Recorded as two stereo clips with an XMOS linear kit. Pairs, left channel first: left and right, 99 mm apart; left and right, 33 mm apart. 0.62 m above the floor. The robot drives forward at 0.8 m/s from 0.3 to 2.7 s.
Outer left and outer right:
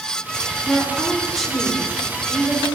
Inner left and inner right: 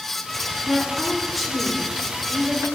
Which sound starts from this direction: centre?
A woman speaking, at 0.7 s.